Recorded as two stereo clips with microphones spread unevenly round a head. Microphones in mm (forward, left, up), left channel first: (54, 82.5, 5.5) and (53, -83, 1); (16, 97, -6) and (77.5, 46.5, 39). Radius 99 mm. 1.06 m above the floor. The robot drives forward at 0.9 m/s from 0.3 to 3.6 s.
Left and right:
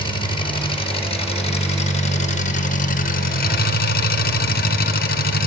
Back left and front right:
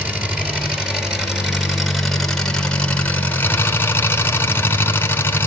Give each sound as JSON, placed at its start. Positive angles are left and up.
{"t": 0.0, "sound": "an engine running", "azimuth_deg": 30, "distance_m": 4.5}